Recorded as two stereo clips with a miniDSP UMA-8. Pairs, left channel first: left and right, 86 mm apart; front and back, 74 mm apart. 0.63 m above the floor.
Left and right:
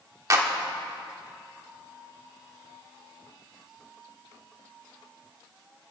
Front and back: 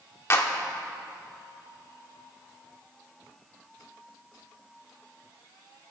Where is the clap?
50° right, 1.3 m.